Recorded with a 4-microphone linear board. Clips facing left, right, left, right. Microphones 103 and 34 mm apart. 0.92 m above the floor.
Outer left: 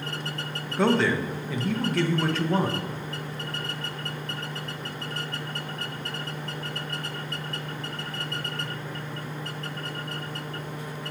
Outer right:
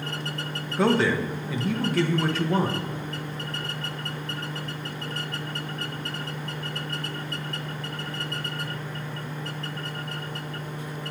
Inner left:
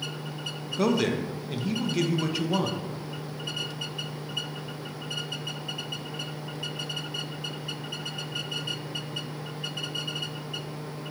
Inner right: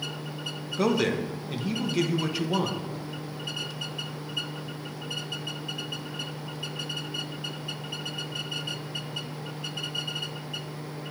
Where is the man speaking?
Centre (ahead or behind), 0.7 m.